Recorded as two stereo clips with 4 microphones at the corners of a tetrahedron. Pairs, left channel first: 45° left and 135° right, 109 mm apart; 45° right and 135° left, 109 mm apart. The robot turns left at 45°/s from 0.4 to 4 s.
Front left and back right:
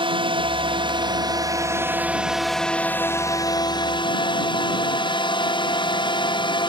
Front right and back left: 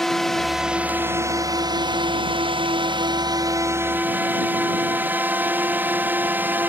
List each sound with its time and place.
0.0 s a drone: 130° right; by 6.7 s 65° left